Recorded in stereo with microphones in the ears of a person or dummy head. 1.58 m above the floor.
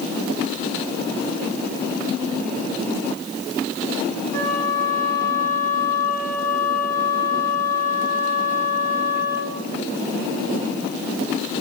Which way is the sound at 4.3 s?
50° right (ahead or behind).